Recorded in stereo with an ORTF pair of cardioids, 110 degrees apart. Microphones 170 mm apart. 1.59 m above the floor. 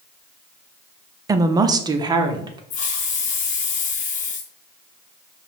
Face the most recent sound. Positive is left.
turn(degrees=50)